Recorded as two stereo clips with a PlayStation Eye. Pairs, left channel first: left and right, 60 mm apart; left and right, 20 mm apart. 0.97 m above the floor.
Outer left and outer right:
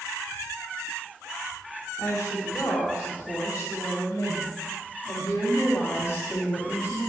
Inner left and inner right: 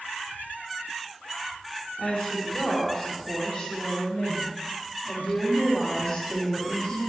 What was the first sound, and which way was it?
A woman speaking, 65° left (ahead or behind).